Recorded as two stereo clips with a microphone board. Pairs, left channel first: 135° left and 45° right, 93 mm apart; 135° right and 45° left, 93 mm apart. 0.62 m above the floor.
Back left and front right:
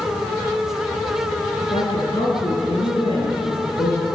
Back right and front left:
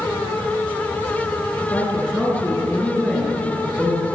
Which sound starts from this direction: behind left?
A woman speaking, at 1.6 s.